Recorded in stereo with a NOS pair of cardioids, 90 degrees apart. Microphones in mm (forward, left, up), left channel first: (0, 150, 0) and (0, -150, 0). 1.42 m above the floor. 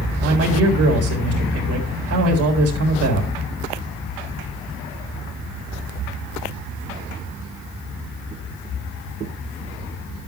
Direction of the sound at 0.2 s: 55° right.